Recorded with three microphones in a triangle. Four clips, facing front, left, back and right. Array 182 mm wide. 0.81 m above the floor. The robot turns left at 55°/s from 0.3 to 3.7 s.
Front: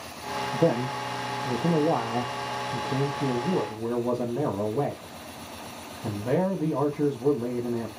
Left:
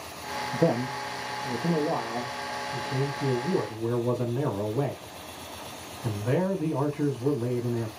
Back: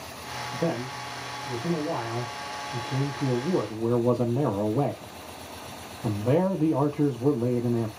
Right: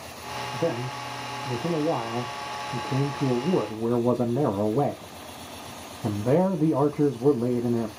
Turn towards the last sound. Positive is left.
turn(degrees=-110)